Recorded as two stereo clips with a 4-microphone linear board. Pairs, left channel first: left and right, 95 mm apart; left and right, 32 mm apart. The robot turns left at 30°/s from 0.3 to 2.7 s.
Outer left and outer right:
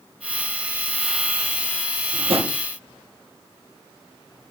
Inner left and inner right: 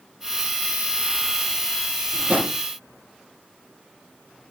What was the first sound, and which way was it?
A drawer, 60° right (ahead or behind).